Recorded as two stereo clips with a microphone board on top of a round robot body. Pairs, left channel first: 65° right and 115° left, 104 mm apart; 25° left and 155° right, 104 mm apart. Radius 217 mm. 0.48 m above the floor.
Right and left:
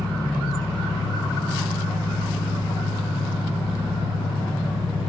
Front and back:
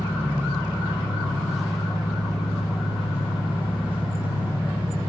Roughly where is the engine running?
Right.